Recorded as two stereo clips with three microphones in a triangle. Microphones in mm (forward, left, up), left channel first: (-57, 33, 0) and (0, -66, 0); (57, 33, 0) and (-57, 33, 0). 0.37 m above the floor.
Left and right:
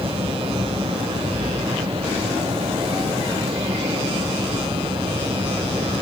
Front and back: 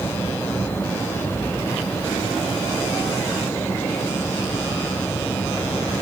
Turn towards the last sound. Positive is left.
No sound to turn to.